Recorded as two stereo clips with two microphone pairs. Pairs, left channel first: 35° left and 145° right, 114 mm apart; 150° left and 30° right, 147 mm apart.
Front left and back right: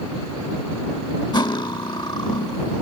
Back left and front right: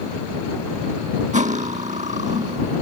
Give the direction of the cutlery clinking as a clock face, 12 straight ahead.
12 o'clock.